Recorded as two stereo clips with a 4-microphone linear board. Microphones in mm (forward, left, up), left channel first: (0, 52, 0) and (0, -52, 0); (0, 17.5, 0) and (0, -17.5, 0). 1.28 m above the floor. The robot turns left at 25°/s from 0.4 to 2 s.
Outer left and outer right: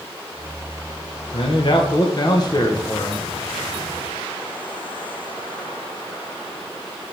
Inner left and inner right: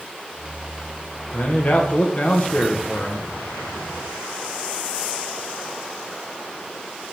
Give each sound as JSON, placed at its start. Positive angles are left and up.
{"t": 1.3, "sound": "a man speaking", "side_deg": 55, "distance_m": 1.3}